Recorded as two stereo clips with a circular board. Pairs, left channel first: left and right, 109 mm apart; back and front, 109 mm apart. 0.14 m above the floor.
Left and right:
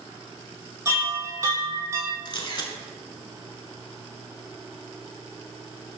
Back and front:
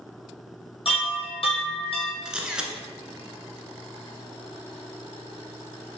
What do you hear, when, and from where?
0.8 s a chime: 155° right, 1.0 m
2.2 s a camera shutter: 80° left, 0.5 m